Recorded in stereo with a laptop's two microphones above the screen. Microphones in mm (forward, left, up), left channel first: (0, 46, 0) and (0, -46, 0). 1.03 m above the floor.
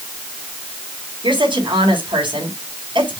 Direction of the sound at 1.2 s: 70° right (ahead or behind).